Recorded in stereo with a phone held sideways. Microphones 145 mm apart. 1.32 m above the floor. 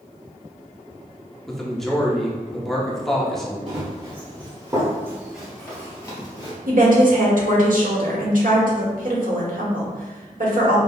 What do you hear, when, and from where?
1.5 s a man speaking: 5° left (ahead or behind), 0.7 m
3.7 s running footsteps: 45° right (ahead or behind), 1.9 m; by 6.6 s 30° left (ahead or behind), 1.5 m
6.7 s a woman speaking: 70° right (ahead or behind), 1.1 m